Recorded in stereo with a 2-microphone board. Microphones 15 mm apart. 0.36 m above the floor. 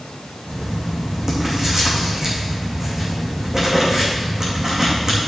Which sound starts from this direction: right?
Writing, at 0.5 s.